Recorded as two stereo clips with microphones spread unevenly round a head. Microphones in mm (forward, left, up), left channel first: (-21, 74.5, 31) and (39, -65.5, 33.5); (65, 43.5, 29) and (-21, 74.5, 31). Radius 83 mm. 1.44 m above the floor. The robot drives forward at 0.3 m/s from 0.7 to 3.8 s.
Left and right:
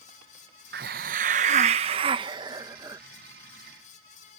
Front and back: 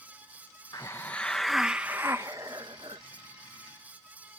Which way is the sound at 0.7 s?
90° right.